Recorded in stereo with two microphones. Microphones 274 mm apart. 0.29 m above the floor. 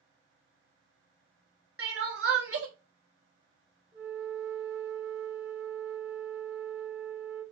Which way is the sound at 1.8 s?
60° right (ahead or behind).